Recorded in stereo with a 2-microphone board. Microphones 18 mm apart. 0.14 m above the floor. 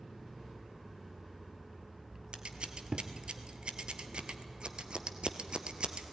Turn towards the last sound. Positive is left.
turn(degrees=-65)  # may be behind; listen again after turning